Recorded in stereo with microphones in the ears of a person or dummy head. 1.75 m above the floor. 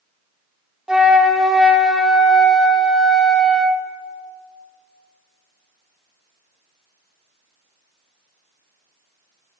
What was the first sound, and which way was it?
A flute, 5° right (ahead or behind).